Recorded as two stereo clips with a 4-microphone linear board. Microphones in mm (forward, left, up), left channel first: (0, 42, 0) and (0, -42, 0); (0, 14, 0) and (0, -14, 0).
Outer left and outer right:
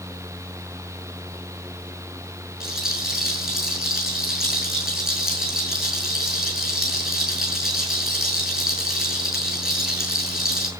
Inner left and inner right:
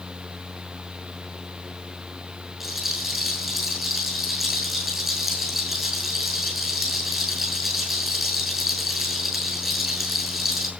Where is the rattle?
10° right (ahead or behind), 6 m.